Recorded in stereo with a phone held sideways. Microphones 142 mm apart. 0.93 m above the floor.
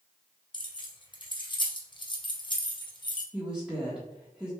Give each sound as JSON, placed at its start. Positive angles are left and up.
{"t": 0.5, "sound": "keys jangling", "side_deg": 35, "distance_m": 0.8}
{"t": 3.3, "sound": "a woman speaking", "side_deg": -5, "distance_m": 1.2}